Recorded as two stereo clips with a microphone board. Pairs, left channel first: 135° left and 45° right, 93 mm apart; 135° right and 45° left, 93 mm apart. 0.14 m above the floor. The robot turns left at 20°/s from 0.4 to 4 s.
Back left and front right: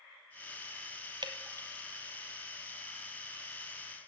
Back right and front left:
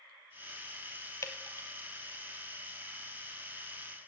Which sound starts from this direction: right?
Dripping, at 1.2 s.